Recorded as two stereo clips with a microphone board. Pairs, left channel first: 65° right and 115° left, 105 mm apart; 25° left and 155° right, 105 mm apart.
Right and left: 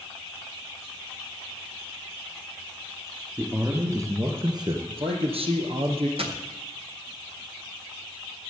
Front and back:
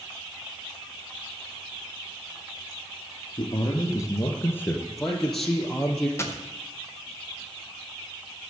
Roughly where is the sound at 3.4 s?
Ahead left.